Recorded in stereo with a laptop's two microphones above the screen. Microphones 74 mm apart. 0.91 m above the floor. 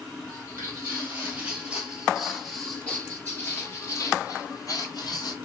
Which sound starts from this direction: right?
Footsteps, at 0.3 s.